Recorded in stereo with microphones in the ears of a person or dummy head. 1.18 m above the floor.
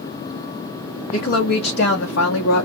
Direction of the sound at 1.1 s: 50° left (ahead or behind).